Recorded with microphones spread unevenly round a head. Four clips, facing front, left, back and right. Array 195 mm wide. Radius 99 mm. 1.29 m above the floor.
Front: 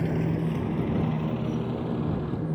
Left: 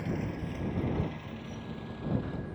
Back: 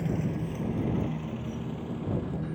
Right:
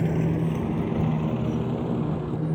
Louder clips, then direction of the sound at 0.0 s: Right 10 dB, front 4 dB; 60° right.